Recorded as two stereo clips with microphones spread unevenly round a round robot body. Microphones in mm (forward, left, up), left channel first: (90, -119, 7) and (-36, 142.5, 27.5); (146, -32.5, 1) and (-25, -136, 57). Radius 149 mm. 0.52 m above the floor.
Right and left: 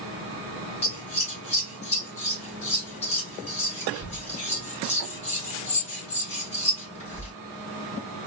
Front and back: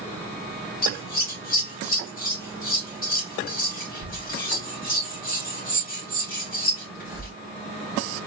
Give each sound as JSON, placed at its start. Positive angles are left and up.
{"t": 0.8, "sound": "scissors", "azimuth_deg": 0, "distance_m": 3.0}